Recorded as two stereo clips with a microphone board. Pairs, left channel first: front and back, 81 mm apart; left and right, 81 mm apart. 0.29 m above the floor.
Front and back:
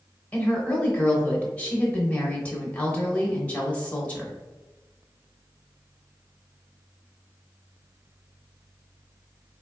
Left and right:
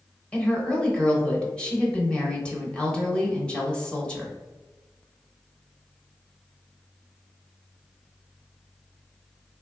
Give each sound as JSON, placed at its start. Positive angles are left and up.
{"t": 0.3, "sound": "a woman speaking", "azimuth_deg": 40, "distance_m": 0.9}